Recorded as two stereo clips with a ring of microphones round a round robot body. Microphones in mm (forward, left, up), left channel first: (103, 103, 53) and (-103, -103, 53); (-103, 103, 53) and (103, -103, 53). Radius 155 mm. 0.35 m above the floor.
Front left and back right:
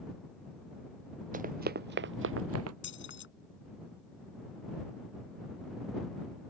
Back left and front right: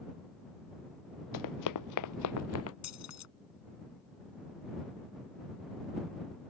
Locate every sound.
1.3 s running footsteps: 160° left; by 2.7 s 175° right
2.8 s keys jangling: 100° left